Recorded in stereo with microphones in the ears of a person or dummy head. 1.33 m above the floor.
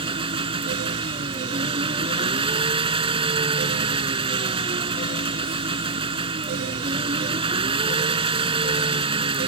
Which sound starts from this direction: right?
An engine running, at 0.0 s.